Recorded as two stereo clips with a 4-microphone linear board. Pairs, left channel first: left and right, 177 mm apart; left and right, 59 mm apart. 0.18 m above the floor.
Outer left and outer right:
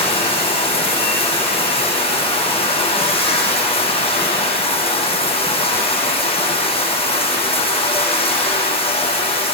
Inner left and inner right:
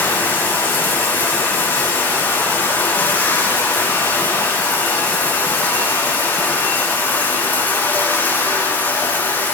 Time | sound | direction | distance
0.0 | running water | 30° left (ahead or behind) | 9 m